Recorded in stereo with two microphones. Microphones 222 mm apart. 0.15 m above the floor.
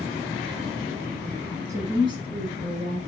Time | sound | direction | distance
1.7 | a woman speaking | 15° right (ahead or behind) | 1.0 m